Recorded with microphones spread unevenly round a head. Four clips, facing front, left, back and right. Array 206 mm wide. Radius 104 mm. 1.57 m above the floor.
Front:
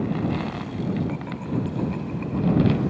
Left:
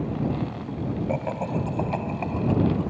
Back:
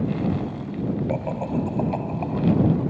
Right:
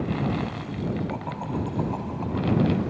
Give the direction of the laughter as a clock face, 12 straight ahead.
7 o'clock.